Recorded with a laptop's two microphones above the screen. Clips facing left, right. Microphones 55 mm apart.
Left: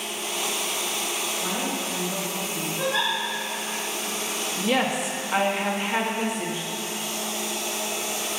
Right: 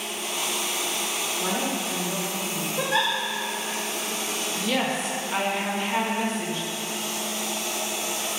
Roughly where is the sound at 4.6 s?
Centre.